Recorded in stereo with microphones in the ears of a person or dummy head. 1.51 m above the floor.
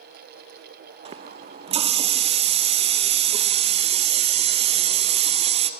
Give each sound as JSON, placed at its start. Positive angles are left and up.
{"t": 1.1, "sound": "a running tap", "side_deg": -35, "distance_m": 0.9}